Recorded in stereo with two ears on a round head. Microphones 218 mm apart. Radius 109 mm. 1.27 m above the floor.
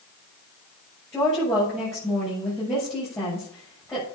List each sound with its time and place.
1.1 s a woman speaking: 10° left (ahead or behind), 6.5 m